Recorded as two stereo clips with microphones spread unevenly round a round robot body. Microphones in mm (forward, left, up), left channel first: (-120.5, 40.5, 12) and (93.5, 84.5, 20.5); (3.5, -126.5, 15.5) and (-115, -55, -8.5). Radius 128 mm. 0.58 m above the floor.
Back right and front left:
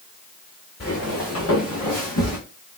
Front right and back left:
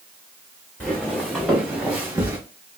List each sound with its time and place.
0.8 s footsteps: 105° right, 2.0 m; by 2.4 s 135° right, 3 m